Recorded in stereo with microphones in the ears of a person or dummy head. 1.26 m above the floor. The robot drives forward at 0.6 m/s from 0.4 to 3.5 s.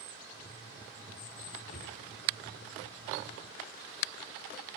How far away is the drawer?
About 6 m.